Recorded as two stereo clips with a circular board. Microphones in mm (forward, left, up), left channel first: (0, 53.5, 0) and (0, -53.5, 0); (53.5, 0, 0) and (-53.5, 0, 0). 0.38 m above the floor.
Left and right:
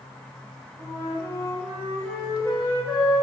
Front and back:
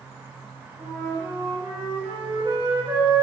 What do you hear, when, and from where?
0.8 s a flute: 145° left, 1.7 m